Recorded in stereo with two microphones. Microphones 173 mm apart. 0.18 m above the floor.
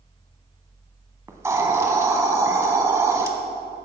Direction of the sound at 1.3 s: 15° right (ahead or behind).